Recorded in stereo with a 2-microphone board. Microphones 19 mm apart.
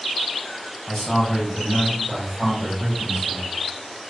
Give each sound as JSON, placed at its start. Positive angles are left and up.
{"t": 0.9, "sound": "a man speaking", "side_deg": 20, "distance_m": 1.1}